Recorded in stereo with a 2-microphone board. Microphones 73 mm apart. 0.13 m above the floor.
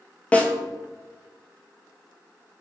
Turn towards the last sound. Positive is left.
turn(degrees=20)  # may be behind; listen again after turning